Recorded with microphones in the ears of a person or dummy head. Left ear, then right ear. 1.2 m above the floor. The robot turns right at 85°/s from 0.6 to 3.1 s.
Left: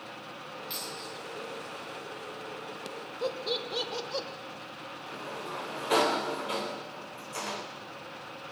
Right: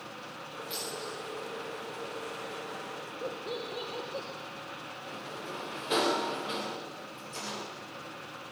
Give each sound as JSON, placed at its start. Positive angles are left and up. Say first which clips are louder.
{"t": 0.7, "sound": "a dropped coin", "louder": "right 2 dB", "side_deg": 25, "distance_m": 9.0}
{"t": 3.2, "sound": "laughter", "louder": "left 6 dB", "side_deg": 60, "distance_m": 2.5}
{"t": 5.1, "sound": "a sliding door", "louder": "left 3 dB", "side_deg": 25, "distance_m": 2.5}